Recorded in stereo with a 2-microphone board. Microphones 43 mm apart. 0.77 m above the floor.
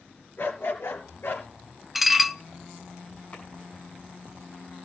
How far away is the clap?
About 7 m.